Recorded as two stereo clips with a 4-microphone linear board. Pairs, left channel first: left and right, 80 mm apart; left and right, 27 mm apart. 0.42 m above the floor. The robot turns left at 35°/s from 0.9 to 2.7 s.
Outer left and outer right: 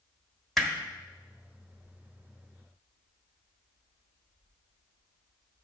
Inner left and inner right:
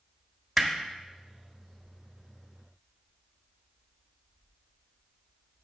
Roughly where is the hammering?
Centre.